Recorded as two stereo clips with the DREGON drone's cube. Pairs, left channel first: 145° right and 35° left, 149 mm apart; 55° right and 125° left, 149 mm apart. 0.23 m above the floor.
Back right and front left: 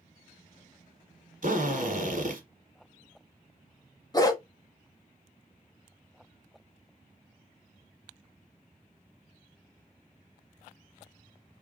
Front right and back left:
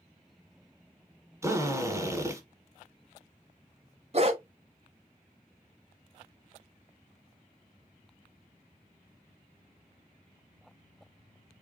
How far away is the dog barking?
About 0.8 m.